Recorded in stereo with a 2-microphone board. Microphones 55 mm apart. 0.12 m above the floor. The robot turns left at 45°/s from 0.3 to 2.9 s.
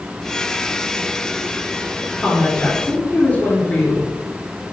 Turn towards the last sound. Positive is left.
turn(degrees=145)